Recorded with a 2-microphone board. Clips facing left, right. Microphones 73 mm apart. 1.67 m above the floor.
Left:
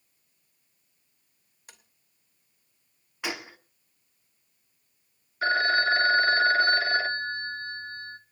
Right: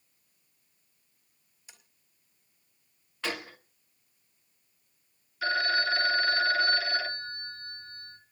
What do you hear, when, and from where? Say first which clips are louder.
1.7 s tapping: left 3 dB; 60° left (ahead or behind), 2.5 m
3.2 s a gunshot: even; 15° left (ahead or behind), 1.3 m
5.4 s a phone ringing: left 4 dB; 40° left (ahead or behind), 1.0 m